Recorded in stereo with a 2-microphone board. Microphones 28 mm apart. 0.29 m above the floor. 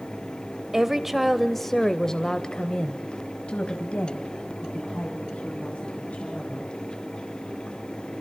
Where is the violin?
I don't hear a violin.